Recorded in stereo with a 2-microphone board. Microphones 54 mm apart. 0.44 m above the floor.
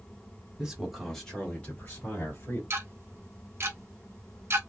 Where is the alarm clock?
I don't hear an alarm clock.